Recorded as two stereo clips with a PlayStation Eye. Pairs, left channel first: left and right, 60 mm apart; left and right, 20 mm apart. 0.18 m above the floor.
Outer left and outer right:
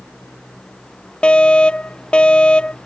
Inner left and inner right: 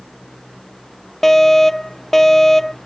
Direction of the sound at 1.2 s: 15° left (ahead or behind).